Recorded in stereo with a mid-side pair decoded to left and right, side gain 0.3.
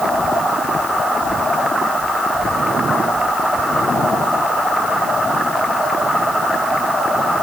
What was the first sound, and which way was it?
Only background noise.